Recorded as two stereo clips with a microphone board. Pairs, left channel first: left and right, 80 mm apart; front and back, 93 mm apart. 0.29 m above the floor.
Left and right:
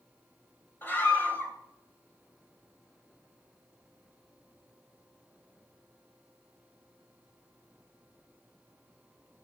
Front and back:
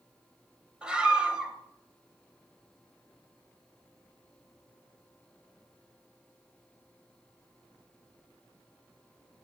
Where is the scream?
110° left, 1.6 m.